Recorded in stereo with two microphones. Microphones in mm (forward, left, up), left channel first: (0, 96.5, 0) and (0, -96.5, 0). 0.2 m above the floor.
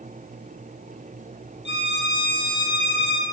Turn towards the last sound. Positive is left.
turn(degrees=75)  # may be behind; listen again after turning